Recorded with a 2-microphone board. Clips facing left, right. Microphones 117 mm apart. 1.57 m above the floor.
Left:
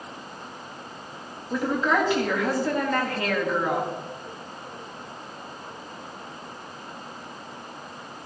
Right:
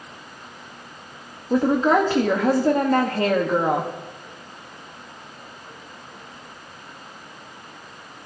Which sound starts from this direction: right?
A woman speaking, at 1.5 s.